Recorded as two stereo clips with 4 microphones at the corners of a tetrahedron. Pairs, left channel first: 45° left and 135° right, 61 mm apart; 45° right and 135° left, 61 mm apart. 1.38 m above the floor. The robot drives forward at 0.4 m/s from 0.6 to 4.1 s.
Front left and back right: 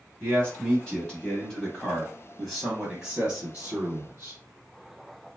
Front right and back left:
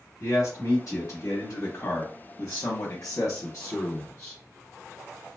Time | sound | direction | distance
0.2 | a man speaking | 30° right | 1.6 m